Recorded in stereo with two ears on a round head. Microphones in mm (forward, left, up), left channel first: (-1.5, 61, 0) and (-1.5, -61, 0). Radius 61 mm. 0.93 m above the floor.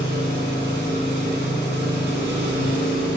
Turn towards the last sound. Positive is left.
turn(degrees=-85)